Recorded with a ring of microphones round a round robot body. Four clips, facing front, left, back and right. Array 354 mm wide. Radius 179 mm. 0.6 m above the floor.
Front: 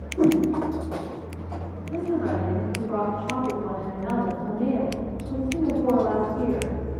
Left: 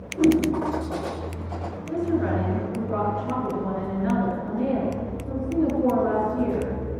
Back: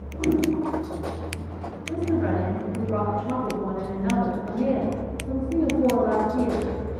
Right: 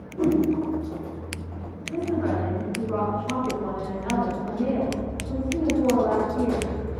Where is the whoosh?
15° left, 3 m.